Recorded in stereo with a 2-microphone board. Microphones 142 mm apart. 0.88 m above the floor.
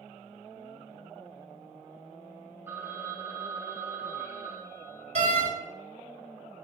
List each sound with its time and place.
2.7 s a phone ringing: 15° right (ahead or behind), 3 m
5.2 s a door slam: 55° right (ahead or behind), 1.9 m